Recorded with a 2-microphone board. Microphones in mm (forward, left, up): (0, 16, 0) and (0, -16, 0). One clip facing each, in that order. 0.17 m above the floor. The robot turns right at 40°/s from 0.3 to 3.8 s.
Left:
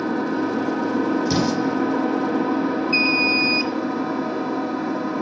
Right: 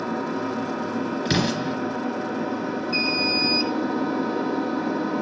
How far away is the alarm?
About 3.5 m.